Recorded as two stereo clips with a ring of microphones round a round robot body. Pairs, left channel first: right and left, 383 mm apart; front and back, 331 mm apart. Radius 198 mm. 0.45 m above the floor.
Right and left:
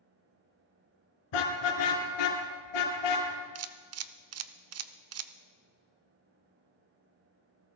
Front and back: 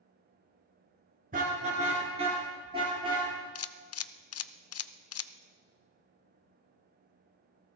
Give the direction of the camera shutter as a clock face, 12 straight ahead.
11 o'clock.